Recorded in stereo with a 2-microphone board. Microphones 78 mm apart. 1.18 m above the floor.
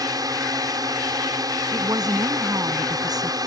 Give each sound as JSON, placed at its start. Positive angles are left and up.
{"t": 0.0, "sound": "a drone", "side_deg": -55}
{"t": 1.7, "sound": "a woman speaking", "side_deg": -55}